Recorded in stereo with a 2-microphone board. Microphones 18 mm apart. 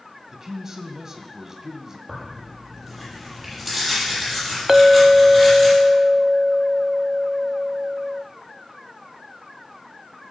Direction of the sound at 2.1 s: 5° left (ahead or behind).